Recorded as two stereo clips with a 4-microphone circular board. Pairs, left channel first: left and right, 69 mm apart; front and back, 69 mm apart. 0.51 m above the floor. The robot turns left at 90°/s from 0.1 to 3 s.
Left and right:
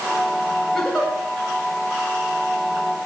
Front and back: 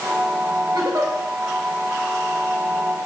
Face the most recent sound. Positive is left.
turn(degrees=-25)